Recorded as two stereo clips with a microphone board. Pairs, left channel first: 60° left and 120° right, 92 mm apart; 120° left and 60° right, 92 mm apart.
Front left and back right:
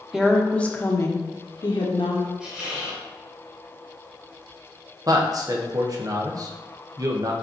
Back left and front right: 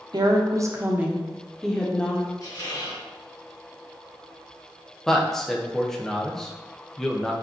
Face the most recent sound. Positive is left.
turn(degrees=-155)